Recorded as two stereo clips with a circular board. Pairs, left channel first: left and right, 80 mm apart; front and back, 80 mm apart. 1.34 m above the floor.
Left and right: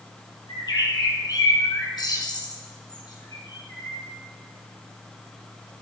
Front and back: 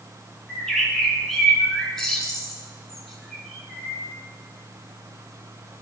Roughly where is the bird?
Left.